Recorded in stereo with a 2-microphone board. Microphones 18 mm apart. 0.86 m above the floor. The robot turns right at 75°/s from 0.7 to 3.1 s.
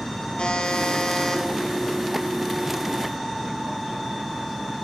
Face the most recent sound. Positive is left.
turn(degrees=-90)